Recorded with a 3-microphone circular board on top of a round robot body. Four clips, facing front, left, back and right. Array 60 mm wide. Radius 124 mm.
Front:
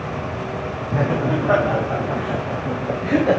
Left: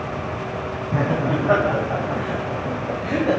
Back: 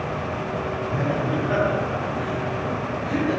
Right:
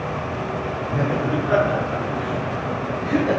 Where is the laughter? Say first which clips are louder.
Left 1 dB, front 5 dB; 50° left, 3.5 m; by 3.4 s straight ahead, 2 m.